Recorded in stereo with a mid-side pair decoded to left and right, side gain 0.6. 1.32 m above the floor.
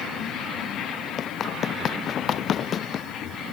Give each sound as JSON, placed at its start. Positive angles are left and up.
{"t": 1.2, "sound": "running footsteps", "azimuth_deg": 45}